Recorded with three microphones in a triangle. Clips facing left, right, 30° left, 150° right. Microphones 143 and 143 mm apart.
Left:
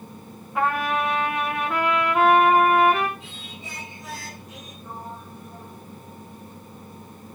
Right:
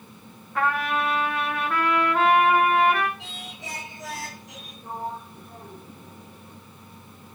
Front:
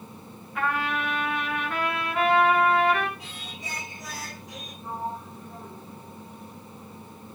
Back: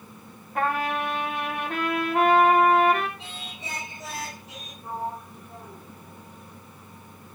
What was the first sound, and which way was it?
A trumpet, 165° left.